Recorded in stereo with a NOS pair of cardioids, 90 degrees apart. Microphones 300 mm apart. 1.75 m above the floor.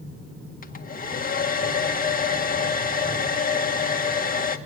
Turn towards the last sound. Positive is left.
turn(degrees=30)